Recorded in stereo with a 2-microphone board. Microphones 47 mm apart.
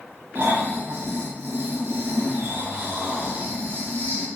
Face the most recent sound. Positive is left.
turn(degrees=-55)  # may be behind; listen again after turning